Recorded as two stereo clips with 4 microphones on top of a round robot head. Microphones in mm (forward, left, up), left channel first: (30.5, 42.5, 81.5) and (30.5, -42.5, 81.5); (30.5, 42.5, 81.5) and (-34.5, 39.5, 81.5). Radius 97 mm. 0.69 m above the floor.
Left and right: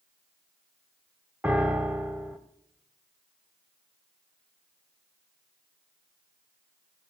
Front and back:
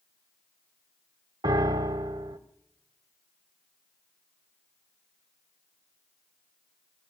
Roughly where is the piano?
Behind.